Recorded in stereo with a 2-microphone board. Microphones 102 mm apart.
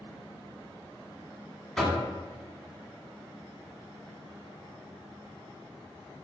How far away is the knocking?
About 0.9 m.